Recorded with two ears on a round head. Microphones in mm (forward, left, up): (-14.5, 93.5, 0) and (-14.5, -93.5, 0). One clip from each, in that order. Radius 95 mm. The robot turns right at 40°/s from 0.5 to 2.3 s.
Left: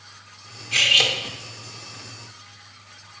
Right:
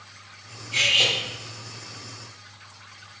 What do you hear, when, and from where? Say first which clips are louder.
0.7 s cutlery clinking: left 3 dB; 60° left (ahead or behind), 0.6 m; by 1.1 s 55° left (ahead or behind), 0.6 m